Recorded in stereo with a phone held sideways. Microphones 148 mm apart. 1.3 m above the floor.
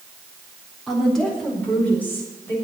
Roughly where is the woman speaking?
Centre.